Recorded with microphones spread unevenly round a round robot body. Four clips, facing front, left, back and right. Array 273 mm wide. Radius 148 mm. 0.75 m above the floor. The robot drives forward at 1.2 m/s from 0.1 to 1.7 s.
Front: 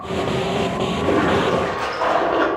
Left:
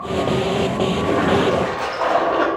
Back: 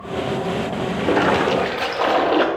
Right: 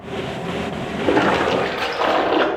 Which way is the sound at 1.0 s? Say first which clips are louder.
Right 3 dB, back 1 dB; 80° right.